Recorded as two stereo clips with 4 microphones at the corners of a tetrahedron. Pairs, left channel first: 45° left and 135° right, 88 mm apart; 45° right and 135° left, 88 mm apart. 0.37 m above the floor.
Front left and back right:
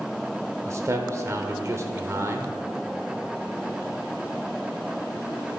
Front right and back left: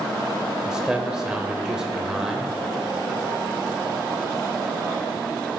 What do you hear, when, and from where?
0.7 s a man speaking: 150° right, 0.9 m